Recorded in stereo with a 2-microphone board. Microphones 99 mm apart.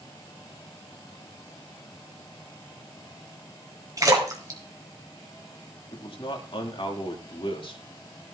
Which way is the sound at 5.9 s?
60° left (ahead or behind).